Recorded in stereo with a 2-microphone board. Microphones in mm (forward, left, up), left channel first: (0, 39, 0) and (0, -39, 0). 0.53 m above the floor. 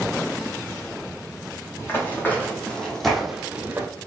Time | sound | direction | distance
1.8 | running footsteps | 30° left (ahead or behind) | 1.4 m